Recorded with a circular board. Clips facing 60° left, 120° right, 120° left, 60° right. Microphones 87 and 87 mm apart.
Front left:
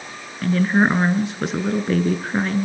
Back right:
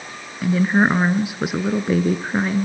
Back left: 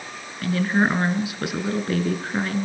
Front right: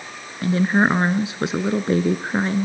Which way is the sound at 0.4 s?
50° right.